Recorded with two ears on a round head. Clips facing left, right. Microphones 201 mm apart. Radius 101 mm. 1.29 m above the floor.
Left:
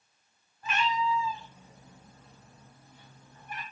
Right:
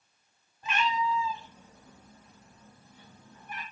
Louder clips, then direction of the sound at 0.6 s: Even; 20° right (ahead or behind).